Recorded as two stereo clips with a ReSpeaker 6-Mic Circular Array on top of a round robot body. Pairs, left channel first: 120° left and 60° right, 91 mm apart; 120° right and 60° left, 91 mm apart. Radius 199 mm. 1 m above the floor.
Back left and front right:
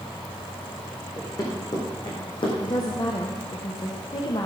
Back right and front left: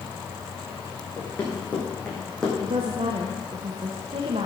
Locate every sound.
1.2 s running footsteps: 170° left, 4.5 m; by 2.5 s 150° left, 3 m
2.6 s a woman speaking: 75° left, 1.3 m